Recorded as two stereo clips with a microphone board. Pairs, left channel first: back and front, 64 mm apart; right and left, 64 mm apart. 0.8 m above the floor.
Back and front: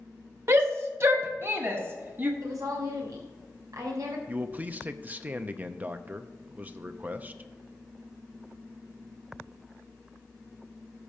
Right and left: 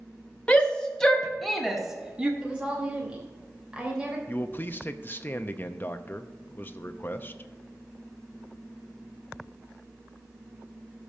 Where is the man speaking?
55° right, 0.6 m.